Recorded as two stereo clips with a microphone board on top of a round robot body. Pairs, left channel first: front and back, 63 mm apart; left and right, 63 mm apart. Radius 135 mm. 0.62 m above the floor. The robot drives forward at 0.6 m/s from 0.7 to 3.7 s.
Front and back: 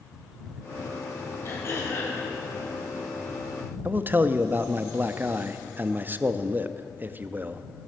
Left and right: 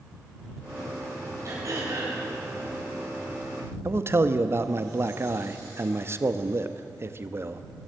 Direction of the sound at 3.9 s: 130° right.